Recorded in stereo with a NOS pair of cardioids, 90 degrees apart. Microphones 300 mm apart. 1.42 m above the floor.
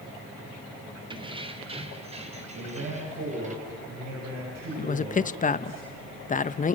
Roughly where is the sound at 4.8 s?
Ahead left.